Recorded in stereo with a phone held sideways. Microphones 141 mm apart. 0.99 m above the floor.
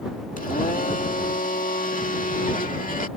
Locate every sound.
0.4 s a blender: 75° left (ahead or behind)